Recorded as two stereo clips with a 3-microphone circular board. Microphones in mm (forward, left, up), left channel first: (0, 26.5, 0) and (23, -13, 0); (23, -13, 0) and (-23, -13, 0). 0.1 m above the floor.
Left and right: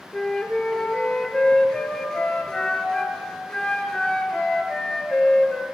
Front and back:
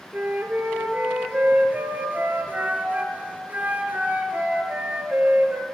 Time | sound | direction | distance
0.1 | a flute | 175° right | 1.3 m